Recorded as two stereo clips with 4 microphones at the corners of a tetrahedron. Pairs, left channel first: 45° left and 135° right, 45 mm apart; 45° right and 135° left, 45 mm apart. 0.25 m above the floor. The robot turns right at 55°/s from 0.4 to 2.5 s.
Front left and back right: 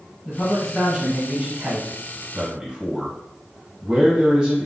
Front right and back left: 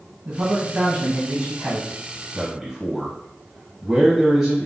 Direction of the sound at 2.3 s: 170° right.